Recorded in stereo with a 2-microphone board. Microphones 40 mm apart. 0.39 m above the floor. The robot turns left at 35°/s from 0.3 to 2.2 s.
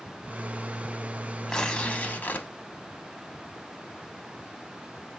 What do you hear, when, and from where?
1.5 s tearing paper: 20° left (ahead or behind), 0.6 m; by 2.5 s 45° left (ahead or behind), 0.6 m